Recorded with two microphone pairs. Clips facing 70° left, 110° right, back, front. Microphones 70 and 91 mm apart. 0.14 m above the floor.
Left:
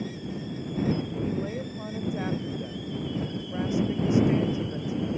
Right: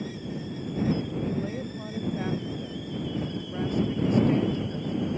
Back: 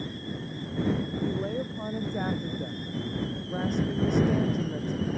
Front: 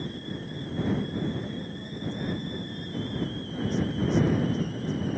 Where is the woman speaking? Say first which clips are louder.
Even, back 3 dB; 150° left.